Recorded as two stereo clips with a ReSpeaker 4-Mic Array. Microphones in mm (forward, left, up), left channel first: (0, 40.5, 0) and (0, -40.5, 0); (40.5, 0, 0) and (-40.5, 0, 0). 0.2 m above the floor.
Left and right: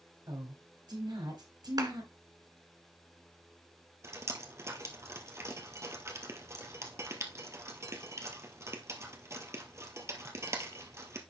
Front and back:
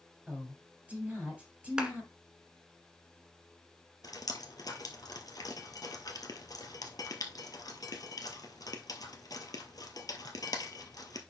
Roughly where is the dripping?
Ahead right.